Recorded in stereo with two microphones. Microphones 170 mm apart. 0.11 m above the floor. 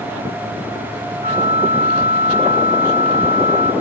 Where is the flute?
45° right (ahead or behind), 4 m.